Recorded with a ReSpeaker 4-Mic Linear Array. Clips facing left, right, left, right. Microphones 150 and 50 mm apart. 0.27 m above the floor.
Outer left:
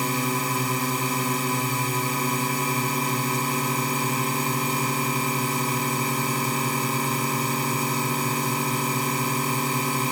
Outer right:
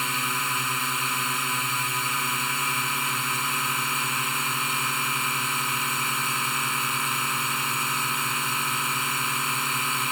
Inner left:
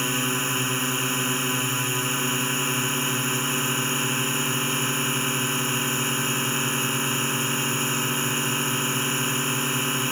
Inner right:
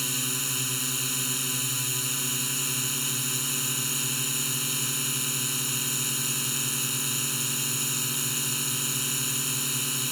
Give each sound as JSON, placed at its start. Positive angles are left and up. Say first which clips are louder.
{"t": 0.0, "sound": "a drone", "louder": "outer left 7 dB, inner left 8 dB", "side_deg": 40}